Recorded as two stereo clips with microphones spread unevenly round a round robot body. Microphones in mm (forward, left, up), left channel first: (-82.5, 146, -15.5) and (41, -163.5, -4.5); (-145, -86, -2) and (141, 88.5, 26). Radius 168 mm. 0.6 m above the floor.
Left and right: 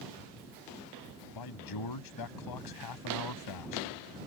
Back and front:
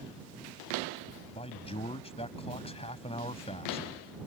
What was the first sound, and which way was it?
A man speaking, 135° left.